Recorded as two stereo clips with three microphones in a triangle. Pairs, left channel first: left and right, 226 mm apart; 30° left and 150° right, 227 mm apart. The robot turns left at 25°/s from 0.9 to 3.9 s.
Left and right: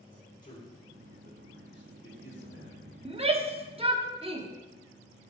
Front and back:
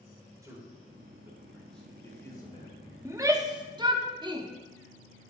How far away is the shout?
About 0.7 m.